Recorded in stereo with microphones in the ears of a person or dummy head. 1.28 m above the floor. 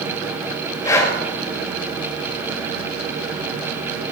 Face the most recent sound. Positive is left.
turn(degrees=25)  # may be behind; listen again after turning